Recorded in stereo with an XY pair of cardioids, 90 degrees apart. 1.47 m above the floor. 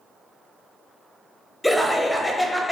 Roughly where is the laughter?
Ahead.